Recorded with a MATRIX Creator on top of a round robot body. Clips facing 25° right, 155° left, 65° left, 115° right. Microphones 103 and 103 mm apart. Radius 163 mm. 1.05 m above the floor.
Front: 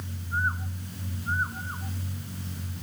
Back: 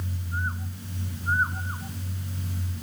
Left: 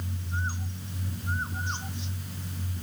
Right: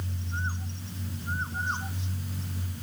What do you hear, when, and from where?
Only background noise.